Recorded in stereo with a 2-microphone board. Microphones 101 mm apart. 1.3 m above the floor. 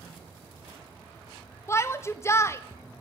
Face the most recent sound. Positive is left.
turn(degrees=25)  # may be behind; listen again after turning